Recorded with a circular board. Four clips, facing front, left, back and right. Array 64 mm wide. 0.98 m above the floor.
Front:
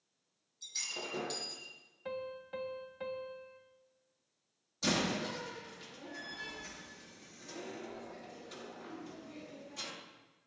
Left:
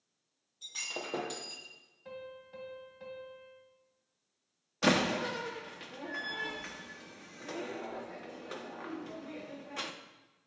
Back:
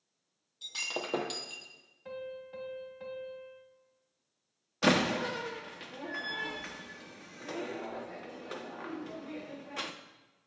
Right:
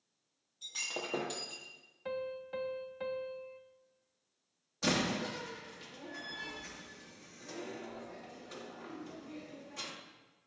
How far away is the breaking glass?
About 2 m.